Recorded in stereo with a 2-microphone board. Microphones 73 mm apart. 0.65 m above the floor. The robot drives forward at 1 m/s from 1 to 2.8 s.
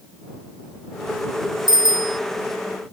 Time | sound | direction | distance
1.7 | a bicycle bell | 85° right | ?